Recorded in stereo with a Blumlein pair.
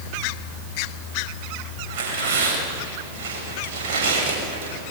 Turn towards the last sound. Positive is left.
turn(degrees=-50)